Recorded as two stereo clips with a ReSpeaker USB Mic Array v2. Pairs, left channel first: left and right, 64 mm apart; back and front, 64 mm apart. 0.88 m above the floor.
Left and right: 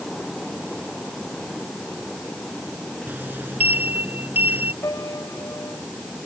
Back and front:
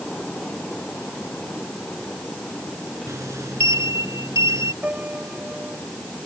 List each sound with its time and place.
3.1 s a sliding door: 35° right
4.8 s a piano: 65° left